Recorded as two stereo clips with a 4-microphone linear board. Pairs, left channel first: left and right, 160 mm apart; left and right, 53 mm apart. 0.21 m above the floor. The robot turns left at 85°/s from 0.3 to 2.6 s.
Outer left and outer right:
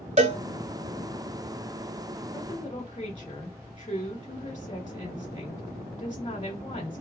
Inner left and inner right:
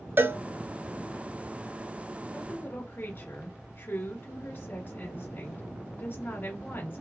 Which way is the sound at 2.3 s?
15° left (ahead or behind).